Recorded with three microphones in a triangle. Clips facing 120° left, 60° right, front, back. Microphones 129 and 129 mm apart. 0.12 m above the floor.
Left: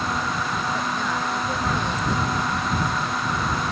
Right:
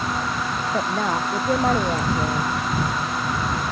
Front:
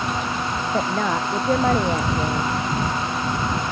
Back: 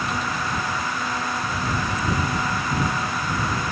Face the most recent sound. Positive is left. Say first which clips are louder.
# right 3 dB, front 6 dB
turn(degrees=-20)